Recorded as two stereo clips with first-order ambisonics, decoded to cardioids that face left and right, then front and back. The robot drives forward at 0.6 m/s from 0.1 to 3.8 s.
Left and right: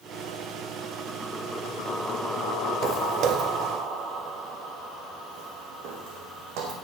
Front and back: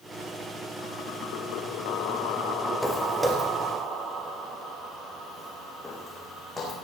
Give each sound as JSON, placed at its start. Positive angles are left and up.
{"t": 2.8, "sound": "footsteps", "azimuth_deg": -105, "distance_m": 1.4}